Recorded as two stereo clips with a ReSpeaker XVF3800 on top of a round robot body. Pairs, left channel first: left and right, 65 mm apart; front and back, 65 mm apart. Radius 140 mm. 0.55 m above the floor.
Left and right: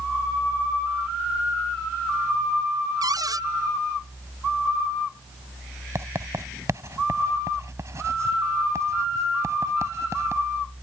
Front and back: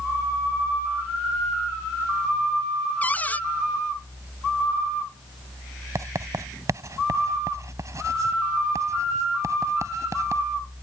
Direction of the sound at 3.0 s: 65° right.